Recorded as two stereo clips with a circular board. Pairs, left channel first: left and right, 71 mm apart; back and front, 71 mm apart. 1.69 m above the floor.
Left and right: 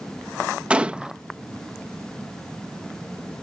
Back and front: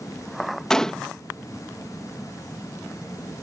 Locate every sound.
0.7 s a gunshot: 120° right